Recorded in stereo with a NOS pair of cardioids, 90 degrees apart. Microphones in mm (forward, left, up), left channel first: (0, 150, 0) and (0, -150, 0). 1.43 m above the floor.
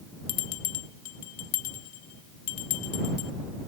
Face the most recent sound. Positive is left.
turn(degrees=65)